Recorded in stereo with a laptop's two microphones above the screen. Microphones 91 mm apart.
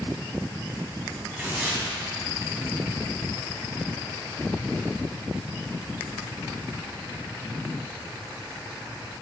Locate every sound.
1.4 s tearing paper: 20° right (ahead or behind), 4 m